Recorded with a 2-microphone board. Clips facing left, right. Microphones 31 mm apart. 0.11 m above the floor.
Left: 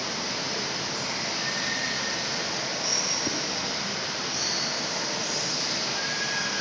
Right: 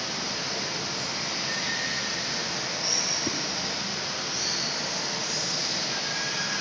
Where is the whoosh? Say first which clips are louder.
Even; centre (ahead or behind), 1.7 m.